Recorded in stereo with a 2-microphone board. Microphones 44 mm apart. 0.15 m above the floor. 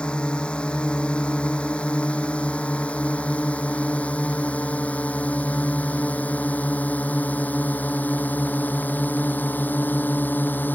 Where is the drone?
25° left (ahead or behind); by 10.8 s 50° left (ahead or behind).